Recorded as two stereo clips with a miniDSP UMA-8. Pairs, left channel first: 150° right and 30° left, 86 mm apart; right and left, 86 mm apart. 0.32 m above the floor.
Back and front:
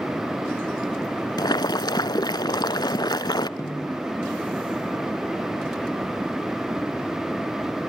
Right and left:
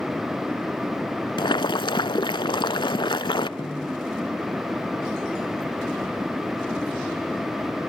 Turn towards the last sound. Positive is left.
turn(degrees=-105)